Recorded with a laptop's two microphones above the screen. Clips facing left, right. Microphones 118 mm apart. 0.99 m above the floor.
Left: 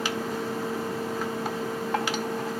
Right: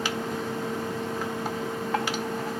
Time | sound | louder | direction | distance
0.0 | a fan | even | 5° left (ahead or behind) | ?